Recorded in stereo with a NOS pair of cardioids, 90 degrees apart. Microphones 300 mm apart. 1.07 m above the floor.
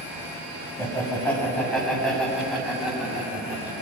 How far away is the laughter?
About 6 m.